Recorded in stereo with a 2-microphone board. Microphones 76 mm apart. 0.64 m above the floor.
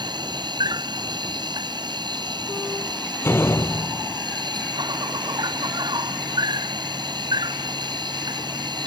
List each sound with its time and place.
0.0 s an insect: 75° right (ahead or behind)
3.2 s a door slam: 30° left (ahead or behind)